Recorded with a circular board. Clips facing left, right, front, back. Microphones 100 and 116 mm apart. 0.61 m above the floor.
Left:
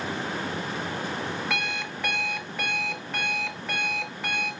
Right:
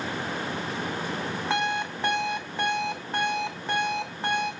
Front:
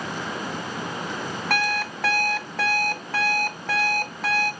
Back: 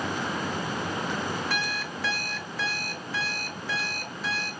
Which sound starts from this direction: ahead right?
An alarm clock, at 1.5 s.